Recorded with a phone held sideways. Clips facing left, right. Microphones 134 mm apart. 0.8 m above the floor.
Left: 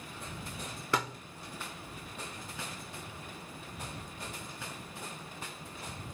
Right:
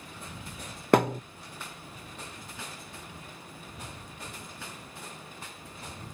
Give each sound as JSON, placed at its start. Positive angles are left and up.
{"t": 0.9, "sound": "a thud", "side_deg": -65}